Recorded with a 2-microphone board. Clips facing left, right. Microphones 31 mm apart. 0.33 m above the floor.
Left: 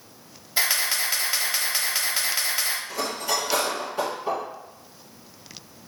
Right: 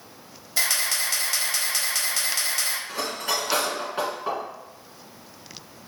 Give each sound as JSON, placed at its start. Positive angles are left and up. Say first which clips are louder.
{"t": 0.6, "sound": "a camera shutter", "louder": "left 1 dB", "side_deg": 15, "distance_m": 1.0}
{"t": 2.9, "sound": "cutlery clinking", "louder": "left 1 dB", "side_deg": -40, "distance_m": 2.0}